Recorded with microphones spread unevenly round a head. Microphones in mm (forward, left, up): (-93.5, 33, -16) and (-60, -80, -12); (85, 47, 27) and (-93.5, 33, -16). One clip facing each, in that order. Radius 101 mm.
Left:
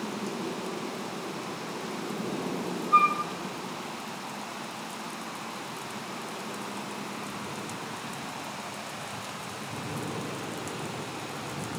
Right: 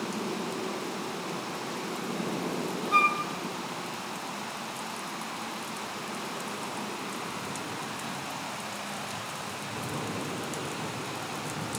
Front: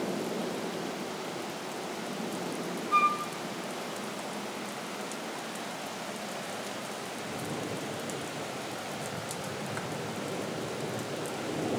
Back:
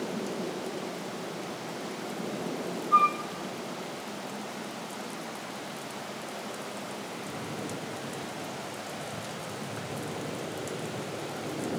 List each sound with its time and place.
2.9 s a flute: 65° right, 2.5 m